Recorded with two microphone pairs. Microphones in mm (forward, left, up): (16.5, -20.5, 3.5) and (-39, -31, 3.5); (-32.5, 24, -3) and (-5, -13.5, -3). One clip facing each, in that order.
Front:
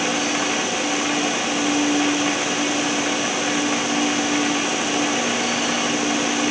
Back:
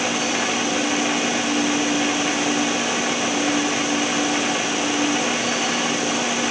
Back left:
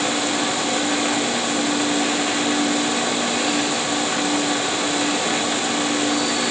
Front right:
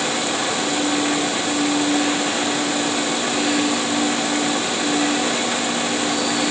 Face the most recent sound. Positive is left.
No sound to turn to.